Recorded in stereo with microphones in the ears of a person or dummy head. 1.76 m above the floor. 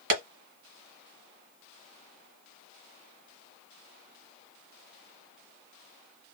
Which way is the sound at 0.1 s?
60° right (ahead or behind).